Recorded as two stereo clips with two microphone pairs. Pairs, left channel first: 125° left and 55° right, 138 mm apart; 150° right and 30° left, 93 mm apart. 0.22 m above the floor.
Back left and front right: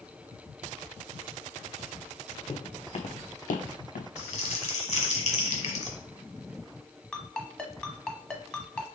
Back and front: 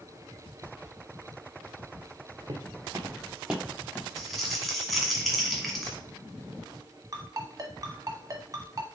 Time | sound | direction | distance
2.5 | footsteps | 65° left | 1.1 m
4.2 | crumpling | 125° left | 1.3 m
7.1 | a ringtone | 50° left | 0.8 m